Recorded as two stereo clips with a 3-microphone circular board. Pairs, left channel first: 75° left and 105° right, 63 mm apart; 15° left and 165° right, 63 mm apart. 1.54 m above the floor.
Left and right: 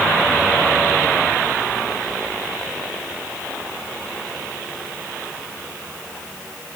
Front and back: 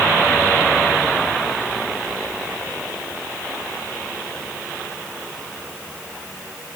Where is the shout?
No shout in this recording.